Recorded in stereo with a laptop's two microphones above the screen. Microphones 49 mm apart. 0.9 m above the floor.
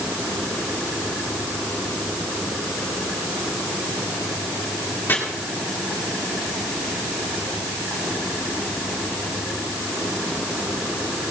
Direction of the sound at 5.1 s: 45° left (ahead or behind).